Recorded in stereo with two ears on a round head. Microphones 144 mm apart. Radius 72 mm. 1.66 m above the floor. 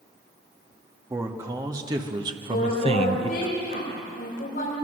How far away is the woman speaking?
About 7.5 m.